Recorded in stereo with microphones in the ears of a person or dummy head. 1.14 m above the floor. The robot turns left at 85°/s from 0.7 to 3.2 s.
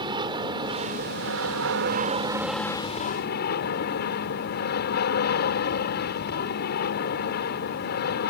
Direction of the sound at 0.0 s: 25° right.